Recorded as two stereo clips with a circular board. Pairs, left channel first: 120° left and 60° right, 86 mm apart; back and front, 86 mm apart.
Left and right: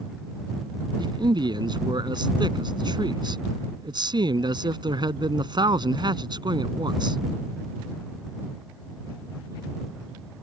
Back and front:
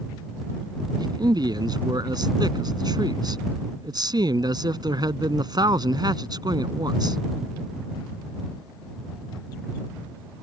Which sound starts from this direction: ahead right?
A man speaking, at 1.0 s.